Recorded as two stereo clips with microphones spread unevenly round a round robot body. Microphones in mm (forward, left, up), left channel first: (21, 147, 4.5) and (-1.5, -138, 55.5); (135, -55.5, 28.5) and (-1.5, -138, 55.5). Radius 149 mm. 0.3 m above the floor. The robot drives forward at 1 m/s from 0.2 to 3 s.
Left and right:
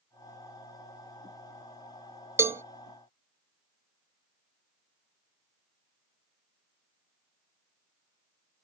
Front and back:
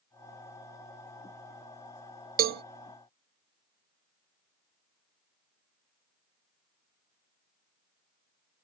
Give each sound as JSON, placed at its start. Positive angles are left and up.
{"t": 2.4, "sound": "a cowbell", "azimuth_deg": 175}